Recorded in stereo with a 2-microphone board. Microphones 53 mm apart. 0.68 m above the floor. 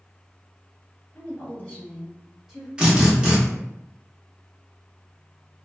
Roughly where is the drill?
Centre.